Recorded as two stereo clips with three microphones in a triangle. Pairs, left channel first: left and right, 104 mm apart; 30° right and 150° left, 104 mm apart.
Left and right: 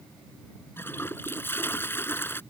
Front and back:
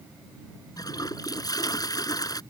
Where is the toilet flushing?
20° left.